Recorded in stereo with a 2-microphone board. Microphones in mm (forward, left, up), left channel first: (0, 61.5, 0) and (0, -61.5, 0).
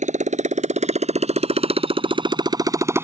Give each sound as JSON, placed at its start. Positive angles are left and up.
{"t": 0.0, "sound": "a motorcycle", "side_deg": -75}